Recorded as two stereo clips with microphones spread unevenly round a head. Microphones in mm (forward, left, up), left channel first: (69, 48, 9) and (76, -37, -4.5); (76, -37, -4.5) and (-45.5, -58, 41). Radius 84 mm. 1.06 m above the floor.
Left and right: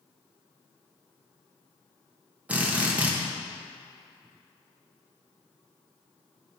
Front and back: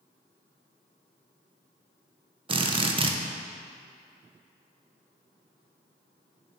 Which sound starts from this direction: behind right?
A drill, at 2.5 s.